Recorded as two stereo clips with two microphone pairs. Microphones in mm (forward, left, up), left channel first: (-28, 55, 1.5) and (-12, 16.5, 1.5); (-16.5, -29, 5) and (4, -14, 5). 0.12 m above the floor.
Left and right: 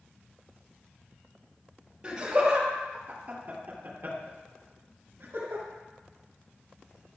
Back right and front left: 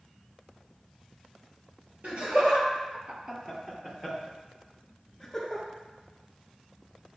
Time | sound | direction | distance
2.0 | laughter | 5° left | 3 m